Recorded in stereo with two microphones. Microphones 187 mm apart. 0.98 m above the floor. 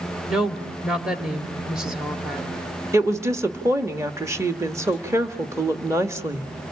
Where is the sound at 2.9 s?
15° right (ahead or behind), 1.5 m.